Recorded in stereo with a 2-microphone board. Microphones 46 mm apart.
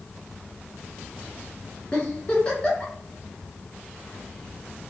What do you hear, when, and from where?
1.9 s a giggle: 25° left (ahead or behind), 1.2 m